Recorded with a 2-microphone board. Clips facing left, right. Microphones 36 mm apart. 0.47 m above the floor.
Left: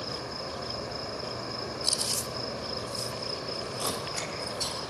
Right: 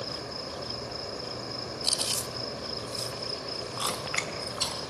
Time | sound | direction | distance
0.0 | an insect | 10° left (ahead or behind) | 1.1 m
1.8 | chewing | 40° right (ahead or behind) | 0.9 m
3.8 | chewing | 55° right (ahead or behind) | 2.5 m